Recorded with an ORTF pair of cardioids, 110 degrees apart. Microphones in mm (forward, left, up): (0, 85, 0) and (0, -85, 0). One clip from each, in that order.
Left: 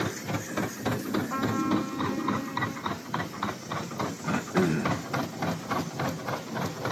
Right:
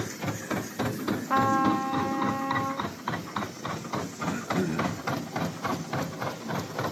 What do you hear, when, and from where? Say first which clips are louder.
1.3 s a trumpet: right 7 dB; 55° right, 1.2 m
4.2 s throat clearing: left 3 dB; 20° left, 0.9 m